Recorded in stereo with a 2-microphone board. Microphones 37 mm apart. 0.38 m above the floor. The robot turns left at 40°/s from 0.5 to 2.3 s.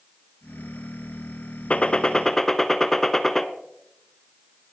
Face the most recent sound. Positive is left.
turn(degrees=10)  # may be behind; listen again after turning